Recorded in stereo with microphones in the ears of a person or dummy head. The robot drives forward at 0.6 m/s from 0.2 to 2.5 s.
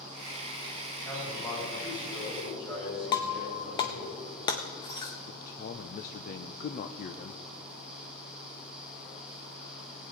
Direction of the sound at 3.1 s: 30° left (ahead or behind).